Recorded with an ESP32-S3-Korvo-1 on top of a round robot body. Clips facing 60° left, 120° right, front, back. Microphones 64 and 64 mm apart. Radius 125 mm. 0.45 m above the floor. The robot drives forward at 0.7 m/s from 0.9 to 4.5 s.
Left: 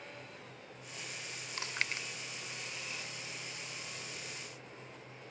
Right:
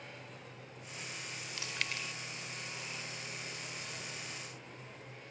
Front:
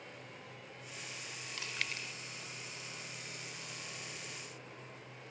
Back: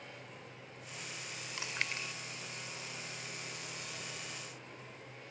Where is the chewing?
110° left; by 2.1 s 125° left.